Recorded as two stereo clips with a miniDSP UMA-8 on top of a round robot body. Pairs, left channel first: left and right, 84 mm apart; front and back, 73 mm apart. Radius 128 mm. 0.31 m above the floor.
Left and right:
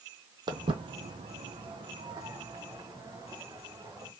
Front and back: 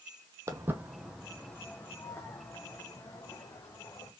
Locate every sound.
0.5 s footsteps: 130° right, 0.8 m; by 4.1 s 40° right, 2.5 m